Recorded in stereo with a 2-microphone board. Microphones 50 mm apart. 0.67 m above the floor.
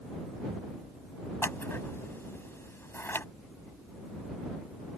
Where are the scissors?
50° left (ahead or behind).